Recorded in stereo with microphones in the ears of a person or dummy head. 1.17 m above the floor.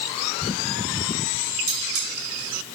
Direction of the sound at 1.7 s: 60° right (ahead or behind).